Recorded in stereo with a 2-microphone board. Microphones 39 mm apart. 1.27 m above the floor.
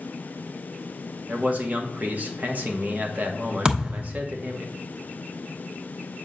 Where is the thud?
25° right (ahead or behind), 1.0 m.